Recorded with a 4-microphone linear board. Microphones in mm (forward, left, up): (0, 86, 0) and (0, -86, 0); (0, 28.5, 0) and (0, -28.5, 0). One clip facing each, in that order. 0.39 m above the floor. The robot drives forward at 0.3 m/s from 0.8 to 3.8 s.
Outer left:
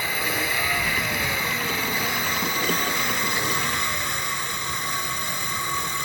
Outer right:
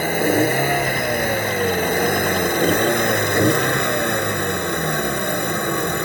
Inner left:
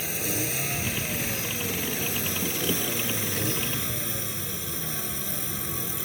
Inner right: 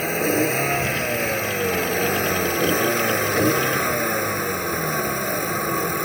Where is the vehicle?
45° right (ahead or behind); by 6.0 s 55° right (ahead or behind).